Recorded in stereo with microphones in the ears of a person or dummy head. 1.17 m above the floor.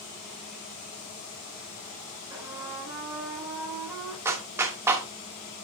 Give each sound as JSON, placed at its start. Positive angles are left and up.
{"t": 2.3, "sound": "a trumpet", "side_deg": -10, "distance_m": 4.0}
{"t": 4.2, "sound": "a clap", "side_deg": -15, "distance_m": 1.1}